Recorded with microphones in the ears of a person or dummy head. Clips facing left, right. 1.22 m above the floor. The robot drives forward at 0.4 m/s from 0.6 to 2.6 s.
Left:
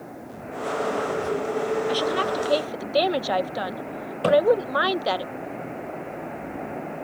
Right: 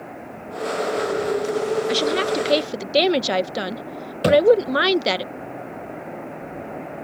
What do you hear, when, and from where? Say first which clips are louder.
1.9 s a woman speaking: right 3 dB; 30° right (ahead or behind); by 5.2 s 35° right (ahead or behind)
4.2 s a thud: right 3 dB; 30° right (ahead or behind)